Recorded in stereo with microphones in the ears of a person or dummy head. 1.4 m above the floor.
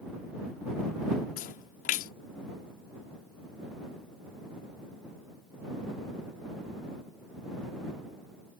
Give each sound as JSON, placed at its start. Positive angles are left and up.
{"t": 1.4, "sound": "a splash", "side_deg": 45}